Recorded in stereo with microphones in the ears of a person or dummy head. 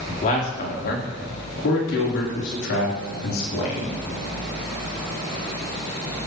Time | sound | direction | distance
0.1 | a man speaking | 45° left (ahead or behind) | 3.5 m